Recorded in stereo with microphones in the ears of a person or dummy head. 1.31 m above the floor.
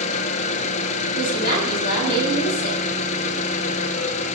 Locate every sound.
0.0 s an engine running: 40° left (ahead or behind), 0.9 m
1.1 s a woman speaking: 55° left (ahead or behind), 6.5 m